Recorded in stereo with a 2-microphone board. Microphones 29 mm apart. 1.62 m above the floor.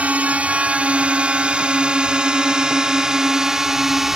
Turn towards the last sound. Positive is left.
turn(degrees=-15)  # may be behind; listen again after turning